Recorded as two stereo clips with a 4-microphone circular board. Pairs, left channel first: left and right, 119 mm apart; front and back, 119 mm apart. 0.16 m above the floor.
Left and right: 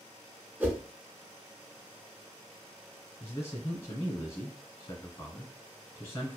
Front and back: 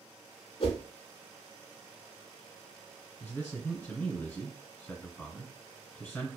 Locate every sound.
0.6 s a whoosh: 20° right, 0.6 m
3.2 s a man speaking: 50° left, 1.3 m